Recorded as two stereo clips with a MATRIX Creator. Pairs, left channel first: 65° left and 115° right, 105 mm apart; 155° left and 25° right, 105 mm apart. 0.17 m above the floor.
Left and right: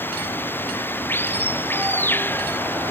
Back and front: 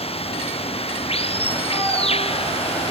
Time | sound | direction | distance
0.0 | running water | 135° left | ?